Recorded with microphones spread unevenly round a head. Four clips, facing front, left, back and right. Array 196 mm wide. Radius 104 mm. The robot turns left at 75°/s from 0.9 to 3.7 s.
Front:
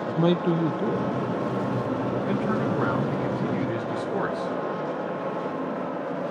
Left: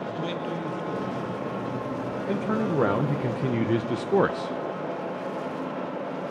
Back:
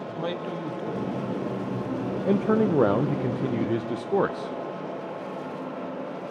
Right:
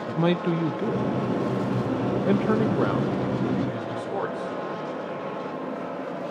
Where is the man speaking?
45° right, 1.0 m; by 4.5 s 105° left, 1.0 m.